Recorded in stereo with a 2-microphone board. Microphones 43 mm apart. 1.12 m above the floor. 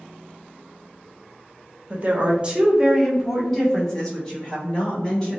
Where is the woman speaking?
45° right (ahead or behind), 0.6 m; by 5.4 s 20° left (ahead or behind), 1.8 m.